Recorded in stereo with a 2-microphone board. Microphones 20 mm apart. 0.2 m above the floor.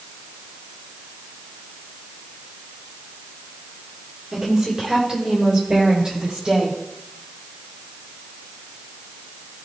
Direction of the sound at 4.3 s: 25° right (ahead or behind).